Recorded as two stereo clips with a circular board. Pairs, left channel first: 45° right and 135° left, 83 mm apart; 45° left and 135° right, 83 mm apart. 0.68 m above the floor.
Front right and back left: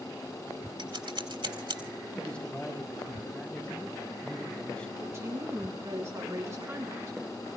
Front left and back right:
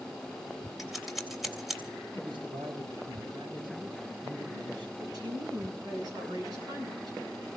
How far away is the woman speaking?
About 6.5 m.